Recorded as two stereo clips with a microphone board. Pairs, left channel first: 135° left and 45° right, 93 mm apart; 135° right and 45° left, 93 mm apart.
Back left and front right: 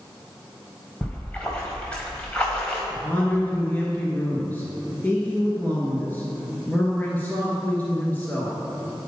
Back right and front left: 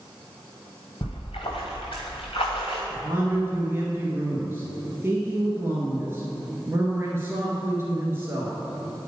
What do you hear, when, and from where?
1.0 s a splash: 150° right, 2.5 m
2.9 s a man speaking: 80° left, 1.3 m